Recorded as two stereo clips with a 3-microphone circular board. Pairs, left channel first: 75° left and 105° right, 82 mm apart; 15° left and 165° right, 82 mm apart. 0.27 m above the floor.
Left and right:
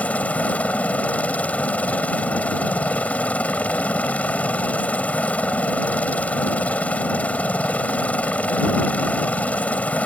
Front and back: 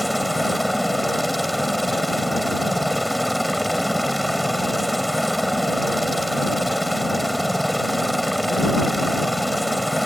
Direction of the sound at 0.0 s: 105° left.